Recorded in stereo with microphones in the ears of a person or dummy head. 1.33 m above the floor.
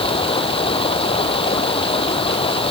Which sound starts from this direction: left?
Running water, at 0.0 s.